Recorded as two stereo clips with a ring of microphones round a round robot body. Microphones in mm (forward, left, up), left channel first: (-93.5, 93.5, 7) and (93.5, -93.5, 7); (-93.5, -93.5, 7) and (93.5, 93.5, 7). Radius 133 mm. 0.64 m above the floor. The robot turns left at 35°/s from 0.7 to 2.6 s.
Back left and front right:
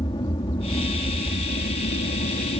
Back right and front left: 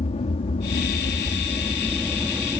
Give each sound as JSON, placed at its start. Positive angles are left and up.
{"t": 0.0, "sound": "an aircraft", "azimuth_deg": -170}